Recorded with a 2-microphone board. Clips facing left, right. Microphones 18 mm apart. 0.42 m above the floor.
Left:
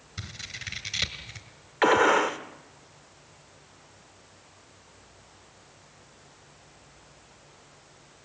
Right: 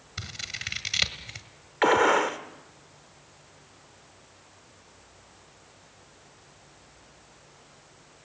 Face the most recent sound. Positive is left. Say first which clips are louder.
# even
turn(degrees=0)  # may be behind; listen again after turning